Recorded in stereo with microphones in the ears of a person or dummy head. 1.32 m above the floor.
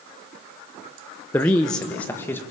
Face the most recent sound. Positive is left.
turn(degrees=10)  # may be behind; listen again after turning